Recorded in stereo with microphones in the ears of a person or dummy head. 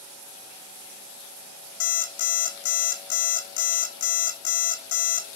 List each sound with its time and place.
1.8 s an alarm clock: 75° left (ahead or behind), 1.4 m